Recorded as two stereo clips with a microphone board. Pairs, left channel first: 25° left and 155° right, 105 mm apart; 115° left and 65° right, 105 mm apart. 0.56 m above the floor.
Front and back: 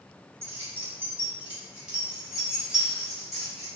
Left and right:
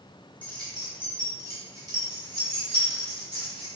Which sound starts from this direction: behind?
Keys jangling, at 0.4 s.